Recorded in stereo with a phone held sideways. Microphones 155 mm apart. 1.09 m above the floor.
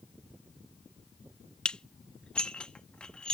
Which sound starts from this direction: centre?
Dishes clattering, at 1.6 s.